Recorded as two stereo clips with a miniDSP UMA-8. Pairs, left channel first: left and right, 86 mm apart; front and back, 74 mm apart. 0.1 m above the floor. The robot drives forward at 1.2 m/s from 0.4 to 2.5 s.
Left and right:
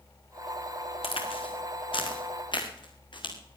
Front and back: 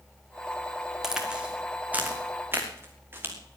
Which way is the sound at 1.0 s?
95° left.